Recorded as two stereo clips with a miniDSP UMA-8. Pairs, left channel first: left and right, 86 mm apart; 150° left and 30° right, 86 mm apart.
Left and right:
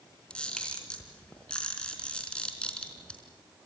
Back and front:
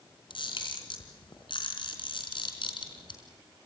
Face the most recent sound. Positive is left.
turn(degrees=170)